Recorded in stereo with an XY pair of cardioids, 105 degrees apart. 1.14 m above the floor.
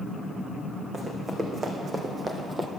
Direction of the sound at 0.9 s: 35° right.